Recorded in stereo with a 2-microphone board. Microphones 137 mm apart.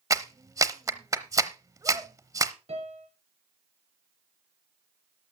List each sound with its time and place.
0.1 s a clap: 25° right (ahead or behind), 0.8 m
2.7 s a piano: 55° right (ahead or behind), 3 m